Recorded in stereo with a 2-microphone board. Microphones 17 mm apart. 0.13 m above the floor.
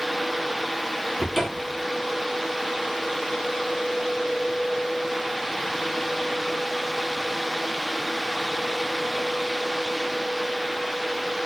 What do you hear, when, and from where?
1.2 s a cupboard door: centre (ahead or behind), 1.1 m